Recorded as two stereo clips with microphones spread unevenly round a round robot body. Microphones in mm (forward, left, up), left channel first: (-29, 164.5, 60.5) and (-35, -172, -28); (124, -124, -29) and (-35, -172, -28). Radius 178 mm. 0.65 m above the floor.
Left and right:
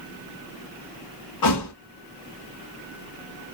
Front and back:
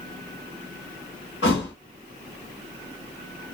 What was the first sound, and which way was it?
A thud, 50° left.